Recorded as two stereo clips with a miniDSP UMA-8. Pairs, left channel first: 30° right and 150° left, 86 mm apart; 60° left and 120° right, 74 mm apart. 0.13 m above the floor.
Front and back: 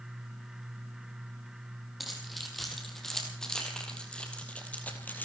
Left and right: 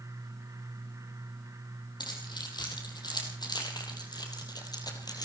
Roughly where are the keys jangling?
Ahead left.